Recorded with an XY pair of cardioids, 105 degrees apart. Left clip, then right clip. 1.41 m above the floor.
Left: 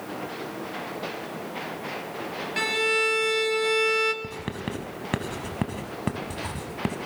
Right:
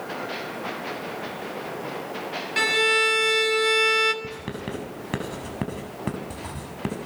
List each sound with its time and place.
2.6 s a violin: 30° right, 2 m
4.2 s writing: 15° left, 6.5 m